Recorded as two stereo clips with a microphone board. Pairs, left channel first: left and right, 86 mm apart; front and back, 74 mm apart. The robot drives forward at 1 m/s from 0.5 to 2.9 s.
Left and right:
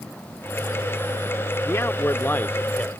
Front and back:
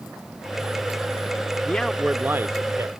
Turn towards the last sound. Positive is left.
turn(degrees=160)